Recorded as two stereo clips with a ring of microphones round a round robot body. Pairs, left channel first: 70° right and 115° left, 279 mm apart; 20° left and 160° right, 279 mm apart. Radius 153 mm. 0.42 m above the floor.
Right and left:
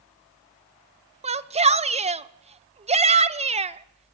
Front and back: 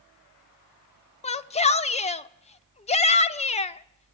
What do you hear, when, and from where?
1.2 s a shout: 65° left, 0.9 m